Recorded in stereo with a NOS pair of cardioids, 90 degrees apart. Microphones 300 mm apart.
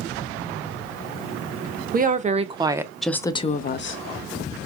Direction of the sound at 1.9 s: 30° right.